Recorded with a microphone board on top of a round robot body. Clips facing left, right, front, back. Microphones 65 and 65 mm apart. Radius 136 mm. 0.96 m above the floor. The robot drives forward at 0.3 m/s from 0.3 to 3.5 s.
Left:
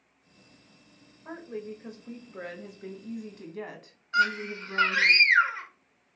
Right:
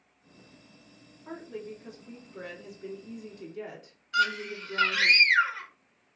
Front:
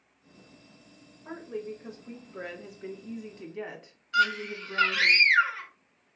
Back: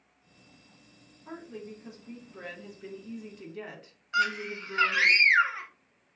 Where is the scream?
125° left, 0.9 m.